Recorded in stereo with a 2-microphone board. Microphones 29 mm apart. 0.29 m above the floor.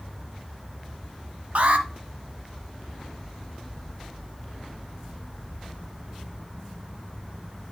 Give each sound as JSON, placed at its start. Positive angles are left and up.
{"t": 1.6, "sound": "an alarm", "side_deg": -65, "distance_m": 1.2}